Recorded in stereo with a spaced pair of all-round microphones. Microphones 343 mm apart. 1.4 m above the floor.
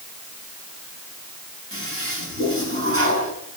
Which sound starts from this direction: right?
A toilet flushing, at 1.7 s.